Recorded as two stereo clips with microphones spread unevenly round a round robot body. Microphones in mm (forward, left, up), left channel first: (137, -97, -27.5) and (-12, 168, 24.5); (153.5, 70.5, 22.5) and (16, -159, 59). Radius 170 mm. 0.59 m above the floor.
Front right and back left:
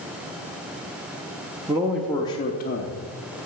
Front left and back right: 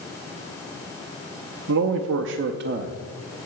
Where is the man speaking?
155° right, 0.8 m; by 3.5 s 50° right, 1.0 m.